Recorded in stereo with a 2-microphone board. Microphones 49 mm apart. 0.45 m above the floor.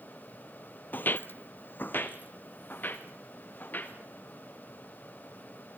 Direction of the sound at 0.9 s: 40° left (ahead or behind).